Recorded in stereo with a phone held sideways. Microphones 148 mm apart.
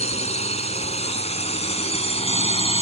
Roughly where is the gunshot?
I don't hear a gunshot.